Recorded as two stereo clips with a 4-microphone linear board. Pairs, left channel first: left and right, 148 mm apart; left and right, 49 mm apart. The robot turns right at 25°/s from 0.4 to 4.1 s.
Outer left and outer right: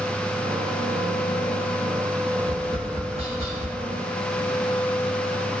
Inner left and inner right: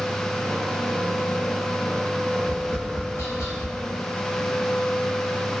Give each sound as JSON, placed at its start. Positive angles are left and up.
{"t": 2.4, "sound": "tapping", "side_deg": 75, "distance_m": 1.0}